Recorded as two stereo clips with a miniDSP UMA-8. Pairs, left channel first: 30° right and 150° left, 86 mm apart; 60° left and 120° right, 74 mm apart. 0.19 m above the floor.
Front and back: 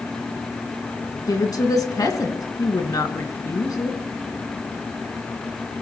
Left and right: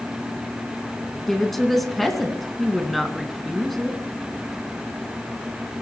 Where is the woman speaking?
25° right, 1.9 m.